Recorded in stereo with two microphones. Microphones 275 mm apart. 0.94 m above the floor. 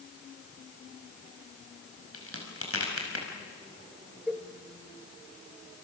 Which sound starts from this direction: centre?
A cowbell, at 4.3 s.